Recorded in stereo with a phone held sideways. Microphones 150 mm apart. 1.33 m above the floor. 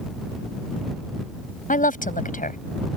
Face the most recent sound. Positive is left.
turn(degrees=65)  # may be behind; listen again after turning